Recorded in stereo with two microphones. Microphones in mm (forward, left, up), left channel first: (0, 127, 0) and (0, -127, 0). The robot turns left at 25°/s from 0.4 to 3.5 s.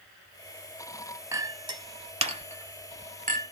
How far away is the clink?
About 0.8 m.